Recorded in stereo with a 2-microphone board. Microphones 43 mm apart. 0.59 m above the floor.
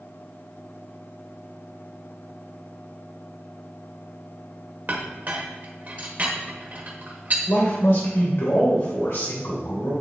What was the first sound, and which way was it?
A clink, 40° right (ahead or behind).